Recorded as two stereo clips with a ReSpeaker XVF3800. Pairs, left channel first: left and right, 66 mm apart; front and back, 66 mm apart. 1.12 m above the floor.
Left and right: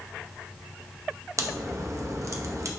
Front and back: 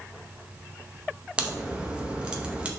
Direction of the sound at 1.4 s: 110° right.